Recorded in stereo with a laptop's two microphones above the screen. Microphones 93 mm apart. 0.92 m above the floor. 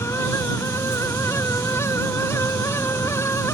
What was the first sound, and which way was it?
A fan, 30° left (ahead or behind).